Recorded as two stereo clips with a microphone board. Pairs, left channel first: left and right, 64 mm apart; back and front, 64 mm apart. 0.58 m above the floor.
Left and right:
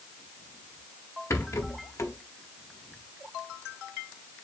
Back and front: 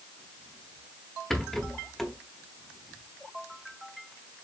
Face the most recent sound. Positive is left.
turn(degrees=95)